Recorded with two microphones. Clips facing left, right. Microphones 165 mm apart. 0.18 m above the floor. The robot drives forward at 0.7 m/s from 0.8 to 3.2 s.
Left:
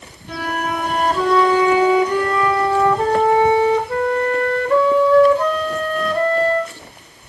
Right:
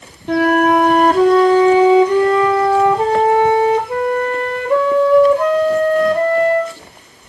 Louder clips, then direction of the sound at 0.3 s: Right 12 dB; 65° right (ahead or behind).